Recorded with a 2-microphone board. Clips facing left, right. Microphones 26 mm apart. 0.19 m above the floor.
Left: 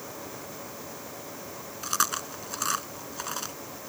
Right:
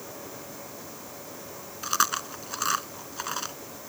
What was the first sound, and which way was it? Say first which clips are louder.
Chewing: right 2 dB; 10° right (ahead or behind).